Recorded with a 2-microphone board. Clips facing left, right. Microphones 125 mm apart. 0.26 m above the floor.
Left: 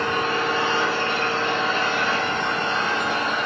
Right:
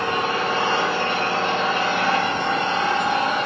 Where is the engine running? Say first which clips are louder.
Right 1 dB; 60° right (ahead or behind), 5 m.